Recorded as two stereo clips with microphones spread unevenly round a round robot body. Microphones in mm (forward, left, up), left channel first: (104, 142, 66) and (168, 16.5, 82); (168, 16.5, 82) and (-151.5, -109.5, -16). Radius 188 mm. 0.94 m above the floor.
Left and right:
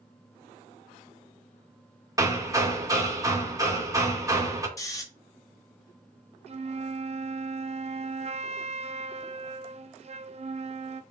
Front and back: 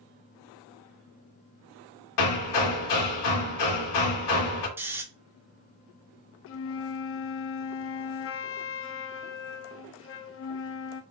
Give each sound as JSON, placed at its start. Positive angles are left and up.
{"t": 2.2, "sound": "hammering", "azimuth_deg": 5, "distance_m": 2.0}
{"t": 4.8, "sound": "snoring", "azimuth_deg": 150, "distance_m": 0.8}
{"t": 6.5, "sound": "a flute", "azimuth_deg": -25, "distance_m": 0.5}